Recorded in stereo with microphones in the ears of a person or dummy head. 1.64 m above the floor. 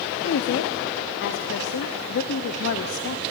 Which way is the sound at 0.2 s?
60° left (ahead or behind).